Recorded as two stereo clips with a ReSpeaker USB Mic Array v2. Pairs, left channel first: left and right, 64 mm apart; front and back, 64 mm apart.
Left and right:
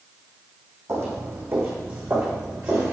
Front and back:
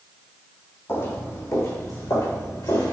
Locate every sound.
0.9 s footsteps: 50° right, 2 m; by 2.9 s 25° right, 4.5 m